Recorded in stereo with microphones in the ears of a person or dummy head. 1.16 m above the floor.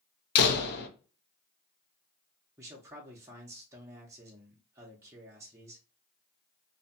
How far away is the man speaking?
About 0.6 m.